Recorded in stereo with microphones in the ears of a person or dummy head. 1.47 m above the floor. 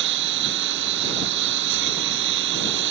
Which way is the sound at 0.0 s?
65° right (ahead or behind).